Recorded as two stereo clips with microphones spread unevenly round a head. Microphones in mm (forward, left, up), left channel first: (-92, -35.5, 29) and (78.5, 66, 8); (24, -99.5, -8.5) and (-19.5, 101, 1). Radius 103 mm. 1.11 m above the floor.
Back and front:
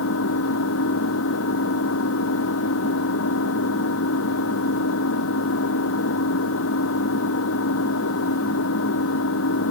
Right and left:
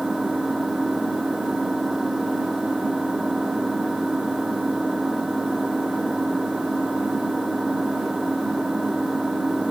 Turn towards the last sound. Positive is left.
turn(degrees=-170)